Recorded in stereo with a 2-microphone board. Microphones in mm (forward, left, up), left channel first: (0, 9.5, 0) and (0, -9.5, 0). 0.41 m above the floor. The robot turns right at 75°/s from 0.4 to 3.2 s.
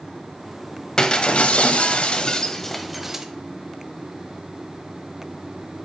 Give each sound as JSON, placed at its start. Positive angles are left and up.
{"t": 1.0, "sound": "breaking glass", "azimuth_deg": 35, "distance_m": 1.0}